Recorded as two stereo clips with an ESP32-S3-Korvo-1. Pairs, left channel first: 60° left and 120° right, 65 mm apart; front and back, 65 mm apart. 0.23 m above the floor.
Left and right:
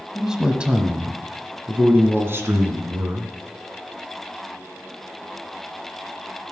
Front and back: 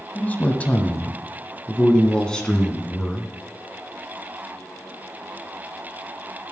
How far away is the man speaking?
About 1.2 m.